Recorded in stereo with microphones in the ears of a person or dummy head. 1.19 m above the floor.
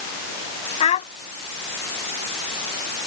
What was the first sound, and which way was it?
A child speaking, 40° left (ahead or behind).